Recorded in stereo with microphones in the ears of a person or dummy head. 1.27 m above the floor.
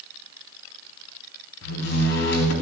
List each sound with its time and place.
1.6 s a door slam: 70° left (ahead or behind), 4 m